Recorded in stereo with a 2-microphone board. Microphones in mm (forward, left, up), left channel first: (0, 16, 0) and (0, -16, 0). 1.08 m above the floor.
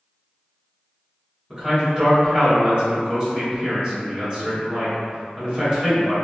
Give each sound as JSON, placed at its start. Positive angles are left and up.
{"t": 1.5, "sound": "a man speaking", "side_deg": -25, "distance_m": 1.4}